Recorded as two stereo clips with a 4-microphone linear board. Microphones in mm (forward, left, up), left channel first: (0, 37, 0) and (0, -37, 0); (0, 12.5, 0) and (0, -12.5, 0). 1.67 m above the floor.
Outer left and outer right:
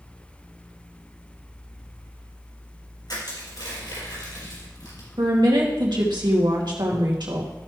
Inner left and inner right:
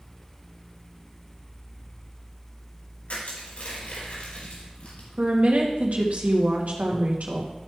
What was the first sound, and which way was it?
Crushing, 70° left (ahead or behind).